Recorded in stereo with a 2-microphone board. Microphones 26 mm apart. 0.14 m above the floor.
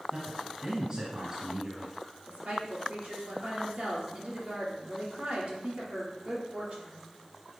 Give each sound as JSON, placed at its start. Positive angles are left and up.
{"t": 0.1, "sound": "a man speaking", "side_deg": -30, "distance_m": 1.7}
{"t": 2.3, "sound": "a woman speaking", "side_deg": -65, "distance_m": 3.5}